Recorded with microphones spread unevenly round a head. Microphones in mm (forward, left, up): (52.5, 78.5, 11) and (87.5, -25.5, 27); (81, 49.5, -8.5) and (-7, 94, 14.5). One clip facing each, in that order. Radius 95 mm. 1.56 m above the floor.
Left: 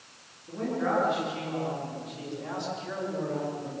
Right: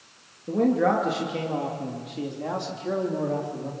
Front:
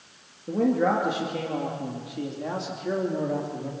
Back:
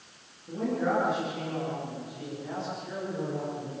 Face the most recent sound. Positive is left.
turn(degrees=-35)